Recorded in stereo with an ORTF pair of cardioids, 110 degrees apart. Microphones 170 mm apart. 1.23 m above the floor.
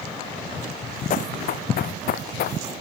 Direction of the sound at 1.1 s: 55° left.